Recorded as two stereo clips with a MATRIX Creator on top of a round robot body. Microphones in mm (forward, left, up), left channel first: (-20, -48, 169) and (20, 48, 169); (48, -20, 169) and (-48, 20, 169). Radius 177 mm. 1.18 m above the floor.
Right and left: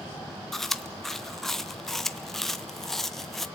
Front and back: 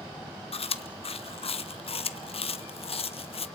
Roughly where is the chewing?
Ahead right.